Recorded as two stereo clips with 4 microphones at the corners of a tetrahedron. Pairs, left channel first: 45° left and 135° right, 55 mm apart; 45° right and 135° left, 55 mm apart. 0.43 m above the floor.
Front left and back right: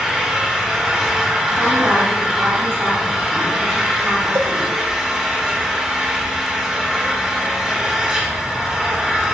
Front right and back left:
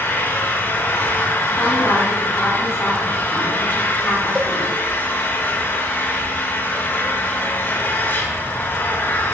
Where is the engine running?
65° right, 1.3 m.